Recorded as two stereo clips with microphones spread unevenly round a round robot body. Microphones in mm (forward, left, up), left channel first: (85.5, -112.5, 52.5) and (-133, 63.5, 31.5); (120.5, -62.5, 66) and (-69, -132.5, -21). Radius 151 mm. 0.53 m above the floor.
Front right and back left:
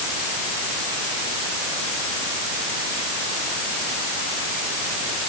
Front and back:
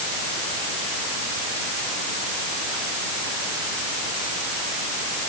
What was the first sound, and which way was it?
Only background noise.